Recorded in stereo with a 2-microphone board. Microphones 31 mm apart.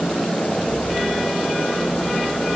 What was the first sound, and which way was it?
Only background noise.